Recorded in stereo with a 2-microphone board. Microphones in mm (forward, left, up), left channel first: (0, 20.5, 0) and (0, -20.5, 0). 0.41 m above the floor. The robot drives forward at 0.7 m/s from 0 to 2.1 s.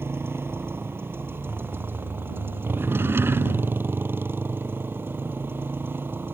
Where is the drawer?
70° right (ahead or behind).